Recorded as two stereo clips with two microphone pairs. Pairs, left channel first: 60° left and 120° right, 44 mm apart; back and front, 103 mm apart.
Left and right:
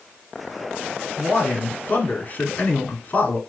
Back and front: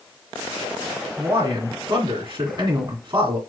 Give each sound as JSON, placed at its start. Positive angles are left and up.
{"t": 1.2, "sound": "a man speaking", "azimuth_deg": 25, "distance_m": 1.9}